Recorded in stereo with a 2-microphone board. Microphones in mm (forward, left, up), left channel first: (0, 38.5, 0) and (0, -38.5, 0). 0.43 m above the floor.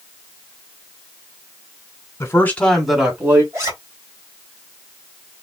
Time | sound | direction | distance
2.2 | a man speaking | 35° left (ahead or behind) | 1.3 m
3.5 | a zipper | 35° right (ahead or behind) | 2.5 m